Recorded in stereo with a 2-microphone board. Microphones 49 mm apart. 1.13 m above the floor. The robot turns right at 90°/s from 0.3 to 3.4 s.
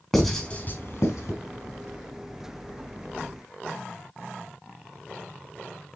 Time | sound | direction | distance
0.1 | writing | 5° left (ahead or behind) | 4 m